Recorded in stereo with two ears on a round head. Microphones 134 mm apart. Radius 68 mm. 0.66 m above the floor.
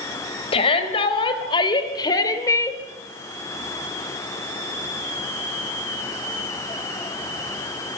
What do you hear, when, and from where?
0.5 s a shout: 40° left (ahead or behind), 4 m; by 2.8 s 20° left (ahead or behind), 2.5 m